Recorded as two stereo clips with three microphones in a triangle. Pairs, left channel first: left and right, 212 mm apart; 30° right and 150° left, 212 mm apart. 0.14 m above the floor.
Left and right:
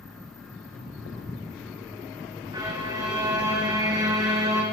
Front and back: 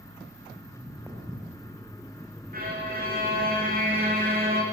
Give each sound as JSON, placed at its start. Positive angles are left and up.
{"t": 0.6, "sound": "footsteps", "azimuth_deg": 75, "distance_m": 4.0}
{"t": 2.5, "sound": "a violin", "azimuth_deg": -165, "distance_m": 4.0}